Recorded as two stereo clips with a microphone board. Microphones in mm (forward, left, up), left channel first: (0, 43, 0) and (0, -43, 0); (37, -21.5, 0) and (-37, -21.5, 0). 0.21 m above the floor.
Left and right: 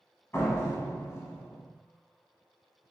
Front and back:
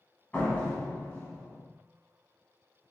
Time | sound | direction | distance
0.3 | a door slam | 55° left | 1.1 m